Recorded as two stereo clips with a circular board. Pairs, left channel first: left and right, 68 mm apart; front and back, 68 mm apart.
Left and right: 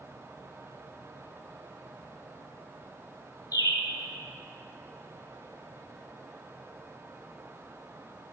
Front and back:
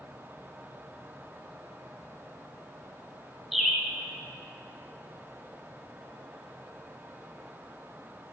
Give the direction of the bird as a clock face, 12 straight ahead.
9 o'clock.